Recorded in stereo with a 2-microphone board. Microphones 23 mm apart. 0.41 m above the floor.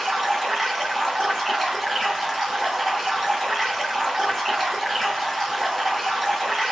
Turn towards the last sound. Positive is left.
turn(degrees=0)  # may be behind; listen again after turning